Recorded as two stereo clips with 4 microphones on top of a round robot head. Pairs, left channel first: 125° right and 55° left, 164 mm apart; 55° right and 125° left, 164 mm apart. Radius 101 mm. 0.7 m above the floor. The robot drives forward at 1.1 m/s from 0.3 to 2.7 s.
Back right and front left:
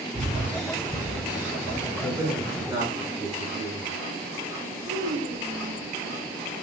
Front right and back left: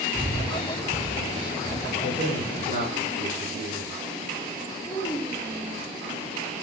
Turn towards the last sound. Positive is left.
turn(degrees=15)